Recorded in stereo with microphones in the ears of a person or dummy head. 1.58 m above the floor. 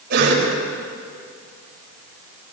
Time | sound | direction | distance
0.1 | a cough | 60° right (ahead or behind) | 7.5 m